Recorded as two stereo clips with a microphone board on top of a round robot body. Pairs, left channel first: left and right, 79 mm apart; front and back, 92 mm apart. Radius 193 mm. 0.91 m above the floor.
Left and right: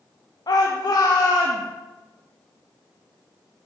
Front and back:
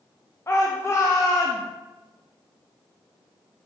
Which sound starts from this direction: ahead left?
A shout, at 0.5 s.